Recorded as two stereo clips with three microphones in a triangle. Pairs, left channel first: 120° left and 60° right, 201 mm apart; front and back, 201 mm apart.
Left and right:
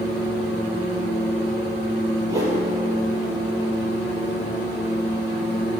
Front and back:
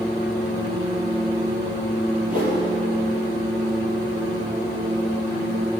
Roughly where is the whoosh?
Behind right.